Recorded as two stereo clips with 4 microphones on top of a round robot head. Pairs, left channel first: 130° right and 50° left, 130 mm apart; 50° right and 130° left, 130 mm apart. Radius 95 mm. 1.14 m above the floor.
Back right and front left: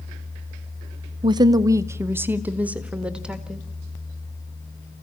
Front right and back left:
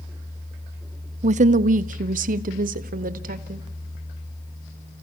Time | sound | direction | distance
1.2 | a woman speaking | 100° left | 0.7 m